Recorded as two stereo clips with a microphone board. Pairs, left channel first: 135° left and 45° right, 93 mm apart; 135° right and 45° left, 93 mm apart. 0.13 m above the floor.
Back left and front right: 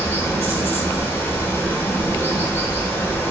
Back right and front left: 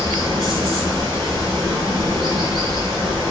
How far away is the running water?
About 1.1 m.